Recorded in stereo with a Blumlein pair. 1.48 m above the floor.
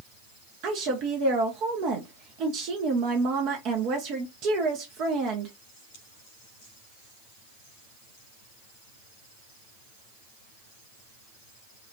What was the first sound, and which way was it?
A woman speaking, 40° right.